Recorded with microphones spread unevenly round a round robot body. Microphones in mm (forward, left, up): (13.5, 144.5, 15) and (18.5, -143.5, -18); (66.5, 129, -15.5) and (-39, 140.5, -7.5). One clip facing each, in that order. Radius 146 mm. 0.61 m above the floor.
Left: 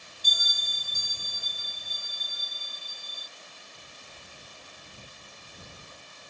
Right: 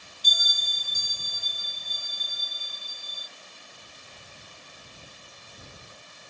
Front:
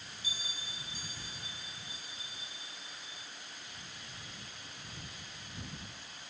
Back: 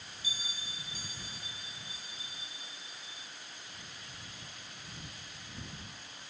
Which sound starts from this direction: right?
A bell, at 0.2 s.